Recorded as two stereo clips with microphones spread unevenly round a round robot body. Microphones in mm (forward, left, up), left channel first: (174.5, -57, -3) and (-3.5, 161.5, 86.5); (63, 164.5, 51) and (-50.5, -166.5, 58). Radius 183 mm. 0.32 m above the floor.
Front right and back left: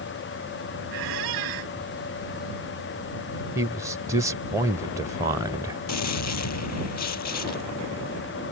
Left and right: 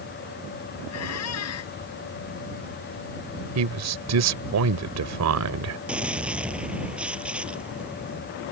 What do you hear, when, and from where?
0.9 s a squeak: 120° left
3.5 s a man speaking: 135° right
5.9 s a gunshot: 20° right